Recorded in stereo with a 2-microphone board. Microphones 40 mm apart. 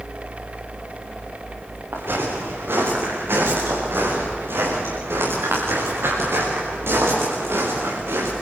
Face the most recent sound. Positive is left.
turn(degrees=-85)